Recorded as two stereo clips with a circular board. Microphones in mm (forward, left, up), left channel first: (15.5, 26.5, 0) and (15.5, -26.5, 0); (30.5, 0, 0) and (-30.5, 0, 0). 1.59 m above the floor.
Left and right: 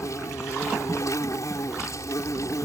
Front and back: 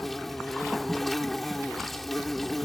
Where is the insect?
85° left.